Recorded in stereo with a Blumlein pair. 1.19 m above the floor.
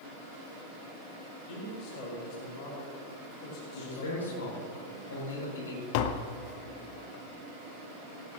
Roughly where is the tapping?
Ahead left.